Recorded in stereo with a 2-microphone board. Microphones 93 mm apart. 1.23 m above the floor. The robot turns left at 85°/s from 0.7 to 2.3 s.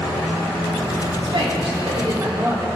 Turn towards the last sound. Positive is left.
turn(degrees=-150)